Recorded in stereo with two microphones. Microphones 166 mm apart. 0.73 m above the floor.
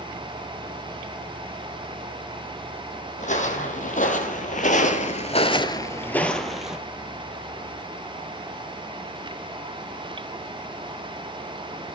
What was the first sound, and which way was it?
Footsteps, 45° left (ahead or behind).